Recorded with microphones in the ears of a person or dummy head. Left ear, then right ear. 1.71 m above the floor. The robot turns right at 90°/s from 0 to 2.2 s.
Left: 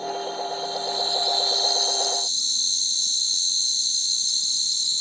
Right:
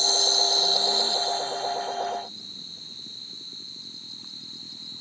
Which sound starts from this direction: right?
An insect, at 0.0 s.